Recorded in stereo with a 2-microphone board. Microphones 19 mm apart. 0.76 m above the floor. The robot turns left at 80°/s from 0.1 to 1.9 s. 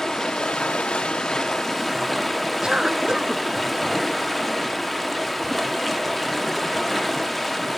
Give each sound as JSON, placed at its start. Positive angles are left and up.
{"t": 0.0, "sound": "running water", "azimuth_deg": 145, "distance_m": 1.0}
{"t": 2.6, "sound": "a cough", "side_deg": -45, "distance_m": 0.9}